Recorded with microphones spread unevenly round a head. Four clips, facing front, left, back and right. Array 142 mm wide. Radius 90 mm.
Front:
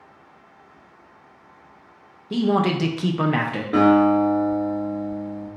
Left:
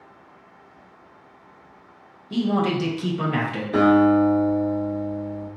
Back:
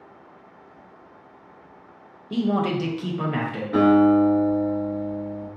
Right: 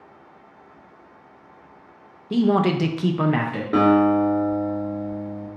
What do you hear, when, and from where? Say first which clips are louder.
2.3 s a man speaking: right 3 dB, front 3 dB; 110° right, 0.6 m; by 3.6 s 5° right, 0.7 m
3.7 s a guitar: left 1 dB, even; 60° right, 1.6 m